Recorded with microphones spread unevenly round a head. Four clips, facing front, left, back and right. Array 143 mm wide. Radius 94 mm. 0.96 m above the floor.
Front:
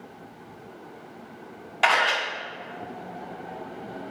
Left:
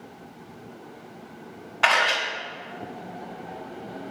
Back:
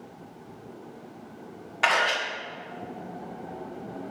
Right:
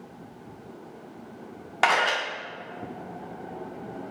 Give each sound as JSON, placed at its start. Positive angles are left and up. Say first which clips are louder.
{"t": 1.8, "sound": "a camera shutter", "louder": "left 1 dB, front 2 dB", "azimuth_deg": -90, "distance_m": 2.0}